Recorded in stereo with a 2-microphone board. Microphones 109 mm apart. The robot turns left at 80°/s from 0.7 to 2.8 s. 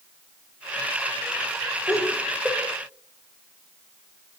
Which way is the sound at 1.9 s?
35° left (ahead or behind).